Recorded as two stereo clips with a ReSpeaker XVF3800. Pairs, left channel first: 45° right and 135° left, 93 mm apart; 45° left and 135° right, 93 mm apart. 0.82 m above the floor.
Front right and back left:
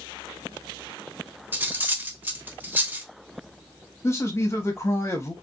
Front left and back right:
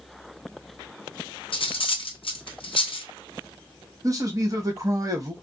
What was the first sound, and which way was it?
Cutlery clinking, 65° left.